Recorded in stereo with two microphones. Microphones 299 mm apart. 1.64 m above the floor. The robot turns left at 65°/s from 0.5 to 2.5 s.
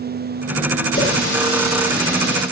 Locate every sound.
0.9 s a running tap: 50° left, 2.5 m; by 2.4 s 45° right, 2.5 m